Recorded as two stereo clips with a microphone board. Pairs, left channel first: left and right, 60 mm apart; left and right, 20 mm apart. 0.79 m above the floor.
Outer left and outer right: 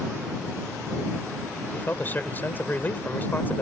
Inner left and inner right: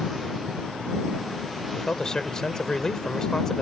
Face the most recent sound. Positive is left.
turn(degrees=30)  # may be behind; listen again after turning